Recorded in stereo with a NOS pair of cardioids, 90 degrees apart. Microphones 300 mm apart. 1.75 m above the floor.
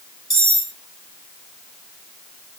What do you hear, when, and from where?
0.3 s cutlery clinking: 10° right, 3 m